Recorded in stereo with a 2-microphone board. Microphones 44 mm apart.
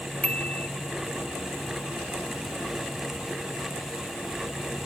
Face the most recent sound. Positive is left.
turn(degrees=30)  # may be behind; listen again after turning